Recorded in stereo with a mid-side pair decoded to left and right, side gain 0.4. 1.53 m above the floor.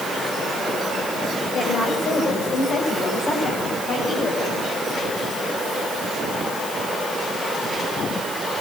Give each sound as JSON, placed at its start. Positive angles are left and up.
{"t": 1.5, "sound": "a woman speaking", "azimuth_deg": 55, "distance_m": 8.0}